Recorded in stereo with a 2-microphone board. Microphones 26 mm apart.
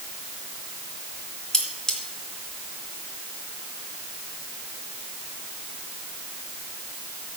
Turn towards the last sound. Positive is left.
turn(degrees=25)  # may be behind; listen again after turning